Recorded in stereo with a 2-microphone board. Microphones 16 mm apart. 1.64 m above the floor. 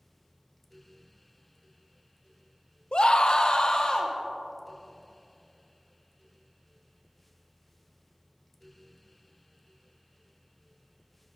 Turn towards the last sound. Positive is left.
turn(degrees=50)  # may be behind; listen again after turning